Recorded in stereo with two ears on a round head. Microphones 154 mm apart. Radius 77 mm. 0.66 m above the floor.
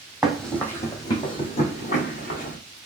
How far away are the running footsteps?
About 1.0 m.